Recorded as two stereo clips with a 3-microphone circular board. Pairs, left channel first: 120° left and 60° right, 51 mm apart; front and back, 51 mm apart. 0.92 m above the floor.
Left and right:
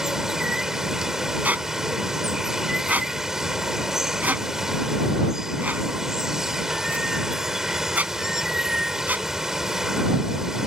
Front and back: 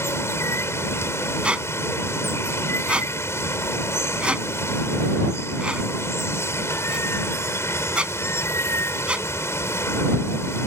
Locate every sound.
0.0 s running water: 20° left
1.4 s a squeak: 115° right